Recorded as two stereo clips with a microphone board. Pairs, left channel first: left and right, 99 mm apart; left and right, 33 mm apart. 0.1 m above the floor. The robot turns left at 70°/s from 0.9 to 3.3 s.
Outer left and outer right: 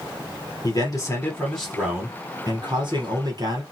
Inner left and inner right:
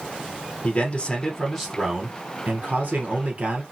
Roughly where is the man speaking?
Ahead left.